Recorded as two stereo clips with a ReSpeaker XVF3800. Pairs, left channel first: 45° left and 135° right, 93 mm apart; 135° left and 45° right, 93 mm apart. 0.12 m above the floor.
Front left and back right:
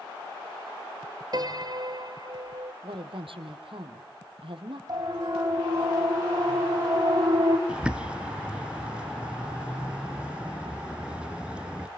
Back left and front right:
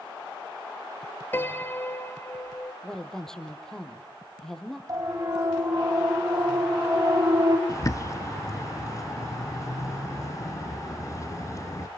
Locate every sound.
1.3 s a piano: 160° right, 1.7 m
2.8 s a woman speaking: 140° right, 3 m
4.9 s a siren: 90° right, 6.5 m; by 7.6 s 95° right, 4.5 m
7.7 s a bird: 155° left, 1.1 m